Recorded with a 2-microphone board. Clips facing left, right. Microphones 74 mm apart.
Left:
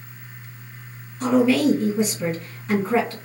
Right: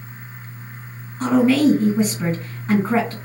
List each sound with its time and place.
1.2 s a woman speaking: 40° right (ahead or behind), 2.0 m